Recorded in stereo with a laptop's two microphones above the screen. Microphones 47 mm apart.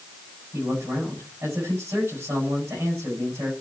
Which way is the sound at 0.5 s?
85° right.